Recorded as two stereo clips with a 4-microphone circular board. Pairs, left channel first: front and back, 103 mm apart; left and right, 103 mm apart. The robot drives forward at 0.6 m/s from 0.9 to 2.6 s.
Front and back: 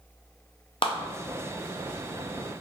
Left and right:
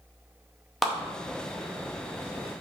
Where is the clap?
5° right, 0.6 m.